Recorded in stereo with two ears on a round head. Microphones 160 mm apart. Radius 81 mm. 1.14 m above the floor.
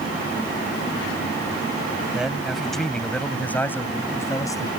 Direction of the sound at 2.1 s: 5° right (ahead or behind).